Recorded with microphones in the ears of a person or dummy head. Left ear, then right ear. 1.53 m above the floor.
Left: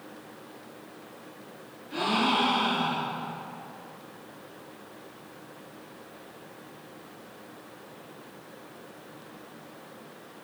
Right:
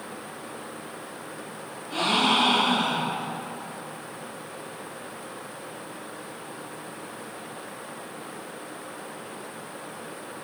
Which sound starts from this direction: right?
A gasp, at 1.9 s.